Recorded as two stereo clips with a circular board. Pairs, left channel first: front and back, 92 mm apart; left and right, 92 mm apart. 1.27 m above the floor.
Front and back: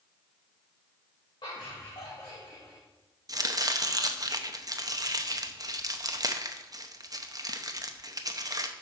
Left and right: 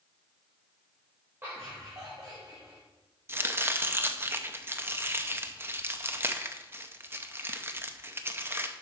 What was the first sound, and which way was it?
Laughter, 25° right.